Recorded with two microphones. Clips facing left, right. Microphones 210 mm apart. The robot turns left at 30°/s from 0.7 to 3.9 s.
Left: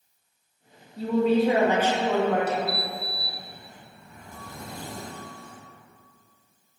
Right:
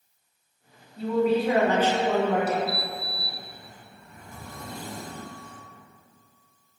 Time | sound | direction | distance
1.0 | a woman speaking | 40° left | 0.8 m
2.7 | a sliding door | 30° left | 1.0 m